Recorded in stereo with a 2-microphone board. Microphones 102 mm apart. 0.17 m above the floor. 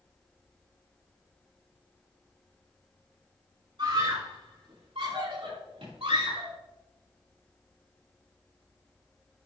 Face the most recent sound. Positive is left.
turn(degrees=-70)  # may be behind; listen again after turning